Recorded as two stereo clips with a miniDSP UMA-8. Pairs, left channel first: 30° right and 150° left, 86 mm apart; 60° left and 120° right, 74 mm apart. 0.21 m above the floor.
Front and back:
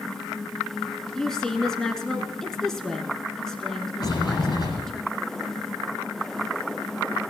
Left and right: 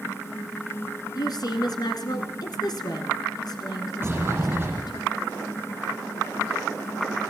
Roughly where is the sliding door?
Ahead right.